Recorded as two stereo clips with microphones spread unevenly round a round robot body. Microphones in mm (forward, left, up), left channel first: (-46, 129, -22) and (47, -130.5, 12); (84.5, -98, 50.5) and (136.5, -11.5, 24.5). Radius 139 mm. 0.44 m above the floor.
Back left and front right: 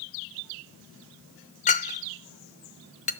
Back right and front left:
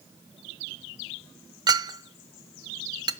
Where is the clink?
60° left, 0.5 m.